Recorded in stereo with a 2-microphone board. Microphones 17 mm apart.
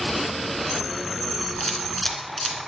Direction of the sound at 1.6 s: 15° left (ahead or behind).